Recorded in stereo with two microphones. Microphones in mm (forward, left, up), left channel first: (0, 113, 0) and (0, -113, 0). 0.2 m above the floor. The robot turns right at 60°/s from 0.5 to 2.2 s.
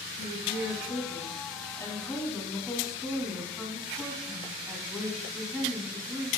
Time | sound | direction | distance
0.2 | a woman speaking | 85° left | 1.9 m